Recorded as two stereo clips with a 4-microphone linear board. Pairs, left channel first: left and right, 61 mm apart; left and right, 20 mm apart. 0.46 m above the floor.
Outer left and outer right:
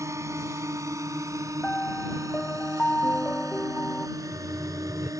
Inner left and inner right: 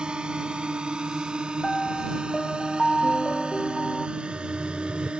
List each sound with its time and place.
0.0 s a drone: 55° right (ahead or behind); by 5.2 s 65° right (ahead or behind)
1.6 s a piano: 20° left (ahead or behind)
4.2 s laughter: 25° right (ahead or behind)